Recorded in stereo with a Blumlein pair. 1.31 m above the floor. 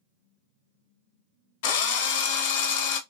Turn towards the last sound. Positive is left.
turn(degrees=50)